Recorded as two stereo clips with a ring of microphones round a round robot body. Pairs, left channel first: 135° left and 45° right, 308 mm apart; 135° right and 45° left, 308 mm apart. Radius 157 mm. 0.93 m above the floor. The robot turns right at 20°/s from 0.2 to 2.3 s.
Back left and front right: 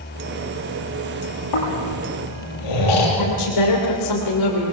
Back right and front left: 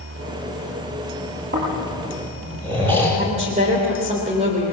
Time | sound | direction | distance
1.5 | snoring | 105° left | 8 m
3.2 | a woman speaking | 115° left | 3.5 m